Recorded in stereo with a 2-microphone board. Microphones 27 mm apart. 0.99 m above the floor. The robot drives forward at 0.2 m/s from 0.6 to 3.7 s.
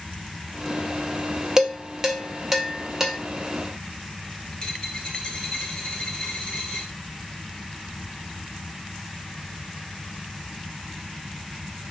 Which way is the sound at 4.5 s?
30° left (ahead or behind).